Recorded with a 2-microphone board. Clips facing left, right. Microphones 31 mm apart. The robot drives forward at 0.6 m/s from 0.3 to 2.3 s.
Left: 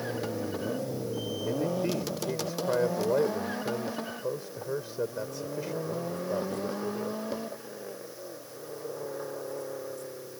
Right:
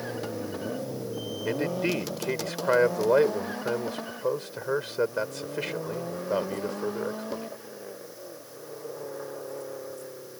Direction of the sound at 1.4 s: 85° right.